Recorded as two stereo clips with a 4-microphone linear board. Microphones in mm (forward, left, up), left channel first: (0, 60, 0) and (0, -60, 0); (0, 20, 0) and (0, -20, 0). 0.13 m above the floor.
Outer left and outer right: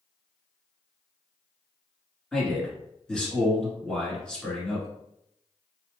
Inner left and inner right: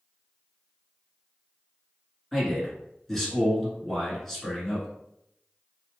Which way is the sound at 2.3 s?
10° left (ahead or behind).